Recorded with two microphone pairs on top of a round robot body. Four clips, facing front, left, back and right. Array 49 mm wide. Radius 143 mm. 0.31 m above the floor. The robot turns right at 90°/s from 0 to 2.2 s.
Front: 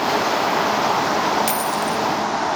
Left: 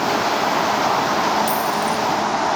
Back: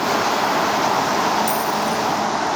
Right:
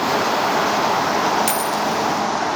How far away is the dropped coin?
About 1.0 m.